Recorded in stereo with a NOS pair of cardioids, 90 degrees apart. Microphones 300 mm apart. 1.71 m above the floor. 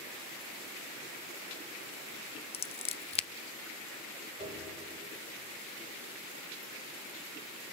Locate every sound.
2.5 s scissors: 20° left, 0.6 m
4.4 s a piano: 20° right, 8 m